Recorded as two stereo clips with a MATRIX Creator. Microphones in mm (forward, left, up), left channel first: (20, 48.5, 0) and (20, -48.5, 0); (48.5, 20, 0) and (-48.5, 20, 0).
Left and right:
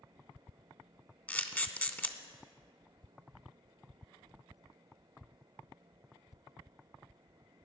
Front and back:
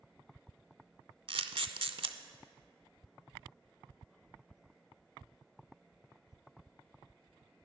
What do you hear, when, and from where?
1.3 s a camera shutter: 160° left, 0.6 m